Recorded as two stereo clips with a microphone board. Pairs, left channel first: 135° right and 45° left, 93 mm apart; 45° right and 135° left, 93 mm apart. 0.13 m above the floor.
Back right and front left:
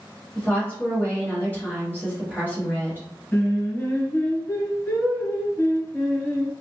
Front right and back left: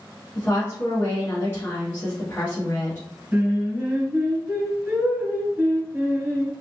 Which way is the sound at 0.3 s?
85° right.